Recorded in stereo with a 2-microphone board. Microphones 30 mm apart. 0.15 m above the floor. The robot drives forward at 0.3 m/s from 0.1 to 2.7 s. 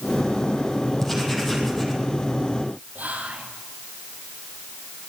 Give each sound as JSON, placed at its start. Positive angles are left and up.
{"t": 1.0, "sound": "writing", "side_deg": 5, "distance_m": 4.5}
{"t": 3.0, "sound": "whispering", "side_deg": -60, "distance_m": 3.5}